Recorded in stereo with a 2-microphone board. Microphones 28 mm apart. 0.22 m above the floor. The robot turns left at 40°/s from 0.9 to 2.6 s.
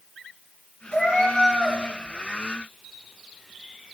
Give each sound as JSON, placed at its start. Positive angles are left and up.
{"t": 0.9, "sound": "a cat meowing", "azimuth_deg": 135, "distance_m": 4.0}